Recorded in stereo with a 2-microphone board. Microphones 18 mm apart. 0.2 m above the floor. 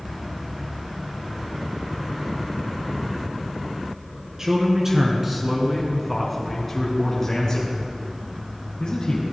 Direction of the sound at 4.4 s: 35° right (ahead or behind).